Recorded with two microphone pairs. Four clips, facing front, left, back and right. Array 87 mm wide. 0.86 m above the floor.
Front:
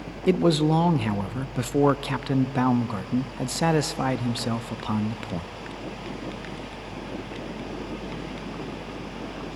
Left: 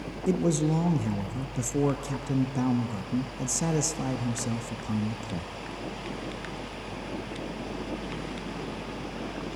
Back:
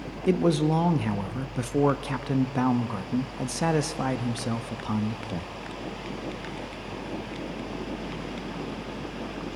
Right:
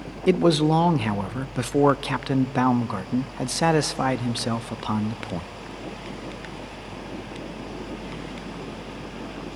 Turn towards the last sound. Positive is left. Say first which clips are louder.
# right 7 dB, front 2 dB
turn(degrees=-75)